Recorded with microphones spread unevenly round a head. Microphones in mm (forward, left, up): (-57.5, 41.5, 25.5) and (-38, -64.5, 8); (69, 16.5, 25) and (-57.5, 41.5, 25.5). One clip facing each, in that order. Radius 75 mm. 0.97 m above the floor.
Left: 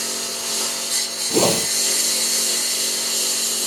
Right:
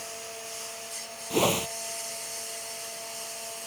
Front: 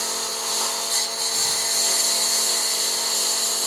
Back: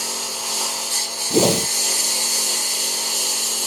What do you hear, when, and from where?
0.0 s a lawn mower: 90° left
1.3 s a whoosh: 160° left